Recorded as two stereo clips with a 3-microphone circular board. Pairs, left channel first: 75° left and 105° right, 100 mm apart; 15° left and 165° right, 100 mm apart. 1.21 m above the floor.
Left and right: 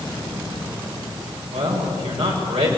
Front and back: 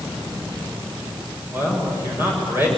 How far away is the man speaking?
About 7 m.